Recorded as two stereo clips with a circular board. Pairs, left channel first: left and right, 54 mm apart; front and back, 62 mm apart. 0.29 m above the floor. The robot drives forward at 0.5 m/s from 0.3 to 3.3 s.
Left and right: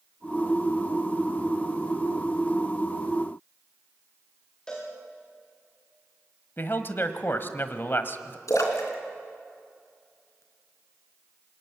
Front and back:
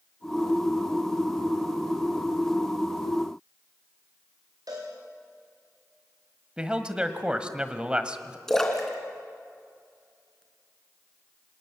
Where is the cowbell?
165° left, 7 m.